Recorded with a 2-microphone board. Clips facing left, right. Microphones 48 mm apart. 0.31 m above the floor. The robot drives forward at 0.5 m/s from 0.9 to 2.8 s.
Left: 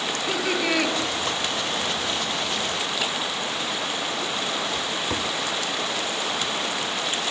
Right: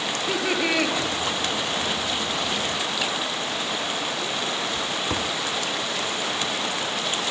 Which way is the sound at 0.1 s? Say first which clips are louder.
Right 1 dB; 5° right (ahead or behind).